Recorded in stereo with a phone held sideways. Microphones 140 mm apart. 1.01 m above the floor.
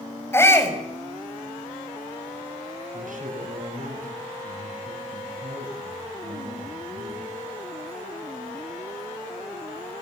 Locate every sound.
0.3 s a shout: 20° left (ahead or behind), 5.5 m
2.9 s a man speaking: 70° right (ahead or behind), 8.5 m